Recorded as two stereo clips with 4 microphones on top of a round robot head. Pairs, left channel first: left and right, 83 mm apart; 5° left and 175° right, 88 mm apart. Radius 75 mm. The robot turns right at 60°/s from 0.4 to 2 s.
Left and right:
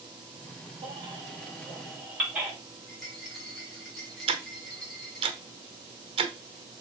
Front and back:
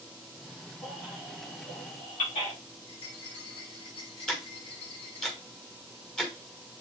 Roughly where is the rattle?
Ahead.